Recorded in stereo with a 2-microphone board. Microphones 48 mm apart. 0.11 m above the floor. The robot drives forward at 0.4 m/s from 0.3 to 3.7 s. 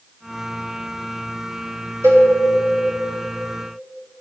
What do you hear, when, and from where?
2.0 s a cowbell: 80° right, 3.5 m